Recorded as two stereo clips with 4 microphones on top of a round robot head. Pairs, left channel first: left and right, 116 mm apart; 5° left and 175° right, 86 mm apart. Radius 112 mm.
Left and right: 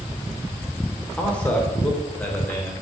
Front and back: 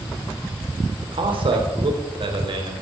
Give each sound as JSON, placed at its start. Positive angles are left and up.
{"t": 1.0, "sound": "a man speaking", "azimuth_deg": 170, "distance_m": 3.5}